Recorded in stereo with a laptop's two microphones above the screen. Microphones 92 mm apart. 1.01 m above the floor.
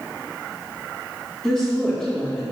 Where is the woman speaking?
10° left (ahead or behind), 2.5 m.